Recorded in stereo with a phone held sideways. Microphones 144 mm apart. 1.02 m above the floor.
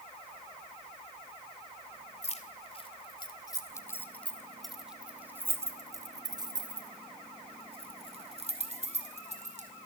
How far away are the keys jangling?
About 2.5 m.